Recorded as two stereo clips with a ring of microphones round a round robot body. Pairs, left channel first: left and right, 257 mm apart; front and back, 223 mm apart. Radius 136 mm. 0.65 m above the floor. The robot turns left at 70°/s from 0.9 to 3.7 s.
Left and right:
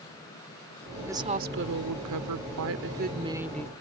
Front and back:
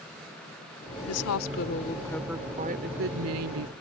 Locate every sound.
1.1 s a woman speaking: 10° right; by 3.7 s 170° left